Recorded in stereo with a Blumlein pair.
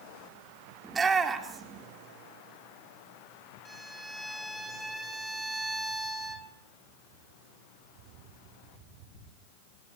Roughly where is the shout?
Ahead.